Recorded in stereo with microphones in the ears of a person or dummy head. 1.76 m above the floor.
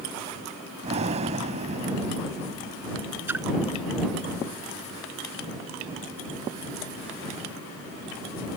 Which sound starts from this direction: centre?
A splash, at 3.3 s.